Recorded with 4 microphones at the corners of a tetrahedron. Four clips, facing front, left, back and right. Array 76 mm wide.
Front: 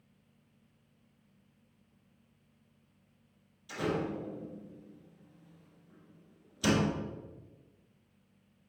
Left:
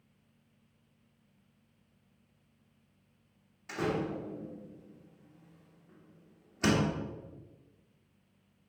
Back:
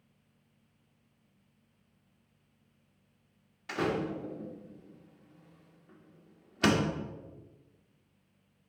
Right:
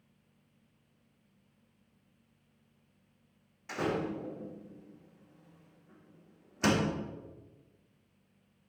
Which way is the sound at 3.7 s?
170° right.